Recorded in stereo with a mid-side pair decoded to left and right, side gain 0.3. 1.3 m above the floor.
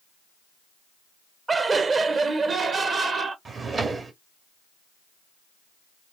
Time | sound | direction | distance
1.5 | laughter | 50° right | 0.8 m
3.5 | a drawer | 65° right | 1.5 m